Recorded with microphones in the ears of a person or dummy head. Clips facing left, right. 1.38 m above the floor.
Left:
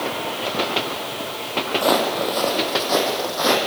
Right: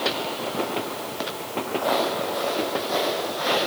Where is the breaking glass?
I don't hear breaking glass.